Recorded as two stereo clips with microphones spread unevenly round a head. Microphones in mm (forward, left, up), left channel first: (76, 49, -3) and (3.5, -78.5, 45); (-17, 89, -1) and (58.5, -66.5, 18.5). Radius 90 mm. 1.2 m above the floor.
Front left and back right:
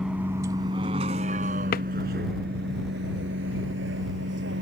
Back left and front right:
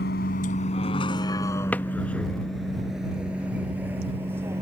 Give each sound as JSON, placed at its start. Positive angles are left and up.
{"t": 0.0, "sound": "a vehicle", "azimuth_deg": 155}
{"t": 1.7, "sound": "a drawer", "azimuth_deg": 35}